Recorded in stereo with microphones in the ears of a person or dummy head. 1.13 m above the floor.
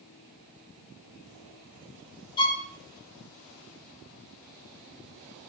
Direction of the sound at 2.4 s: 35° left (ahead or behind).